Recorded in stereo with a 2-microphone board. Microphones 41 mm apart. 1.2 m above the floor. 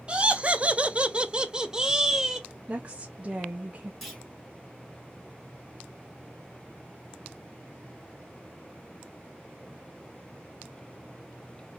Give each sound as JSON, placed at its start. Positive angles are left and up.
{"t": 0.1, "sound": "laughter", "side_deg": -25, "distance_m": 0.6}
{"t": 2.7, "sound": "a woman speaking", "side_deg": -30, "distance_m": 0.5}
{"t": 4.0, "sound": "a clunk", "side_deg": 5, "distance_m": 1.4}